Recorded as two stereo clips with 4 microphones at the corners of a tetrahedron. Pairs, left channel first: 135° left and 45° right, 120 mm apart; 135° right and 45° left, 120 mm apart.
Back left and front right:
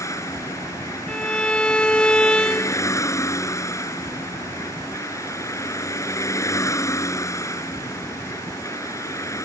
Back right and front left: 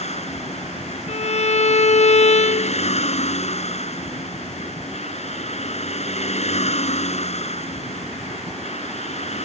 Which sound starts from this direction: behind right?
A violin, at 1.1 s.